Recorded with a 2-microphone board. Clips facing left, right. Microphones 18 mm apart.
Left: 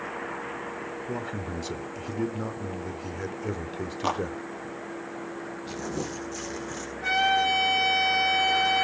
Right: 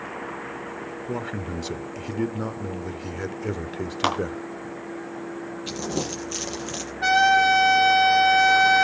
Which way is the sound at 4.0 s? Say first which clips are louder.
Right 4 dB; 70° right (ahead or behind).